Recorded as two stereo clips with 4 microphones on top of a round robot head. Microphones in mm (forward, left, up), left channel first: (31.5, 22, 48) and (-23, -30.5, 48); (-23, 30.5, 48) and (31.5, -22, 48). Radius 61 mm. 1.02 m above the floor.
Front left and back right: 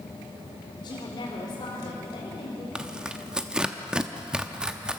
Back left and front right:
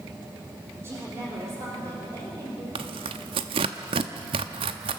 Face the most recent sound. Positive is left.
turn(degrees=-55)